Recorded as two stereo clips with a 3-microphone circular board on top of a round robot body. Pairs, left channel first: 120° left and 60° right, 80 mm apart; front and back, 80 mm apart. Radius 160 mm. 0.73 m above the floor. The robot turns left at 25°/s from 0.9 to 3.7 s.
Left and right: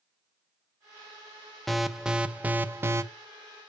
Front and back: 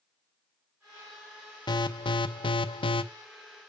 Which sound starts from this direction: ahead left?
An alarm, at 1.7 s.